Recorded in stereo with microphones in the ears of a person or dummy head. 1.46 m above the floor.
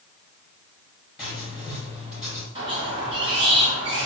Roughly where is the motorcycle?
I don't hear a motorcycle.